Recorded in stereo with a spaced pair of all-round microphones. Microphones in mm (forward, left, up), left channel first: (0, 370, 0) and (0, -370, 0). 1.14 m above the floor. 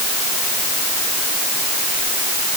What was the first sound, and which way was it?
Only background noise.